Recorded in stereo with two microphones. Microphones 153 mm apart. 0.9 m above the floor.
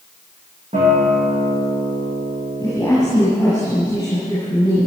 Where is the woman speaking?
20° left (ahead or behind), 7 m.